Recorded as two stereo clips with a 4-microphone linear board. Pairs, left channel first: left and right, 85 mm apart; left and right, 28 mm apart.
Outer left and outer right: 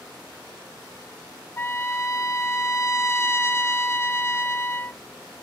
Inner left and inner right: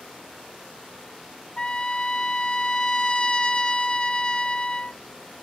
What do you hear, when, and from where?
1.6 s a trumpet: 30° left (ahead or behind), 0.5 m